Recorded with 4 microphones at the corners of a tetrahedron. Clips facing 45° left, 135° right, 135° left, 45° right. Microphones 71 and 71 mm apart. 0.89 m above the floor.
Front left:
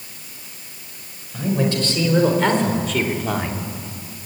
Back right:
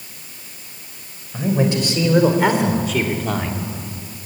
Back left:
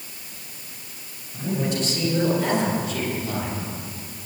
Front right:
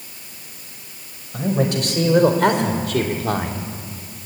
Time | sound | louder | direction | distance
1.3 | a man speaking | back right 2 dB, front right 5 dB | 65° right | 4.5 m